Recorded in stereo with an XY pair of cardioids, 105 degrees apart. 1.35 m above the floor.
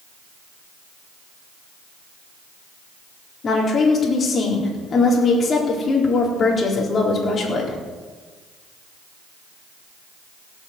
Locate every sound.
3.4 s a woman speaking: 40° left, 4 m